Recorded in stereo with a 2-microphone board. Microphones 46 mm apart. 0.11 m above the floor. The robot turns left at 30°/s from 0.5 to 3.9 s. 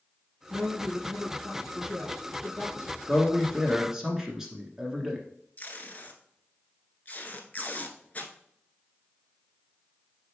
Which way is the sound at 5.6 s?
35° left (ahead or behind).